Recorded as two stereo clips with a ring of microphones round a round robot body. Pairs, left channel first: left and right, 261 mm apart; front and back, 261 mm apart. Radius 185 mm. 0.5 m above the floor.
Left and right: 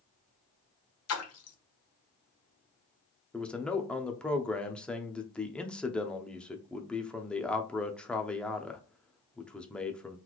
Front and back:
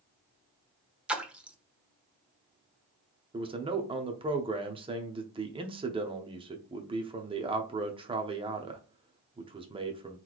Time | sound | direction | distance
1.1 | a splash | 95° left | 1.0 m
3.3 | a man speaking | 170° left | 0.6 m